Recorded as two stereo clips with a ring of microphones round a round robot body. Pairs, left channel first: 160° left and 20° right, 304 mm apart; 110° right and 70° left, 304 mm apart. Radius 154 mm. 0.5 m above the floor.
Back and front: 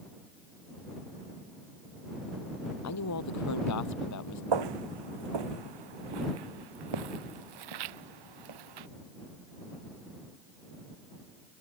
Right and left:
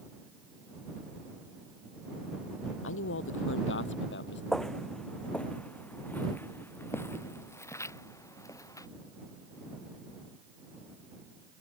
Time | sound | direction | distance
2.8 | a man speaking | 165° right | ?
4.5 | footsteps | 25° right | ?